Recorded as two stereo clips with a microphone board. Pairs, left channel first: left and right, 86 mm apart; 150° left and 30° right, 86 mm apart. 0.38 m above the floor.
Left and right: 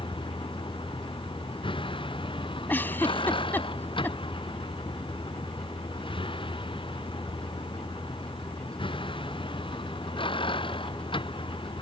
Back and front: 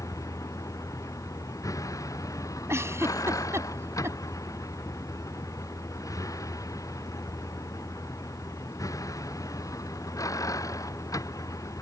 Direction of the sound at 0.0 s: 100° left.